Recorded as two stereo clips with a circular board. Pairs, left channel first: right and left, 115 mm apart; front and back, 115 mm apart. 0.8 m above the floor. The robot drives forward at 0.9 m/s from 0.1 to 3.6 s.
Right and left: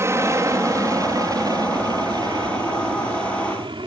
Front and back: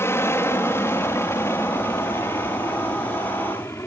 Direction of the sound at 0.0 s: 50° left.